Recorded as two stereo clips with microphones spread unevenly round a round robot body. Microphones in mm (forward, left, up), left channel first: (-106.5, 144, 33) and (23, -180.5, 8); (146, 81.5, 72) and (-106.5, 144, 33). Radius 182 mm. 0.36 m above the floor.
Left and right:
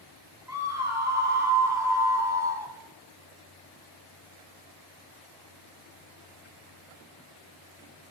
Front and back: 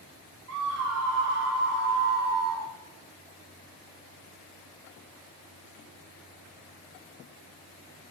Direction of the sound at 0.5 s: 150° right.